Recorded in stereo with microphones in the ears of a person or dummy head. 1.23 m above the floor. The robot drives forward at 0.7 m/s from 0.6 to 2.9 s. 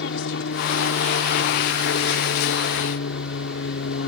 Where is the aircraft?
65° left (ahead or behind).